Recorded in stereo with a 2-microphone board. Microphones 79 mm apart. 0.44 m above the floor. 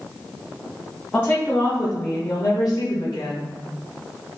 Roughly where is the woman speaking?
Centre.